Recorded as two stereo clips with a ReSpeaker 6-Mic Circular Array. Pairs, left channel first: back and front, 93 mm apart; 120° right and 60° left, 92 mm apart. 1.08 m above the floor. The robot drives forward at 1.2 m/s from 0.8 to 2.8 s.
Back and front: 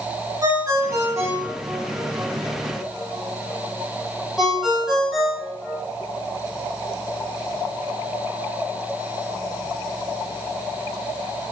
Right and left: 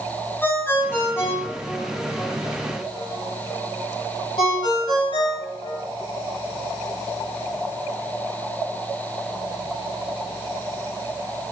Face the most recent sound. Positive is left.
turn(degrees=-85)